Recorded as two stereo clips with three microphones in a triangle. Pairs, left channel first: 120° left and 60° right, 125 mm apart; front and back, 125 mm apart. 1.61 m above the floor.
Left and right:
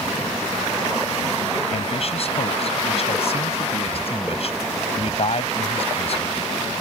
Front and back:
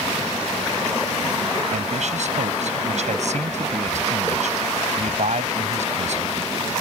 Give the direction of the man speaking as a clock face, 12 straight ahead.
7 o'clock.